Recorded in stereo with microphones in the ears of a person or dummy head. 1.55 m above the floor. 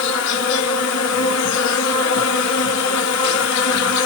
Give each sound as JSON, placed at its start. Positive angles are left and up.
{"t": 0.0, "sound": "an insect", "side_deg": 60, "distance_m": 0.8}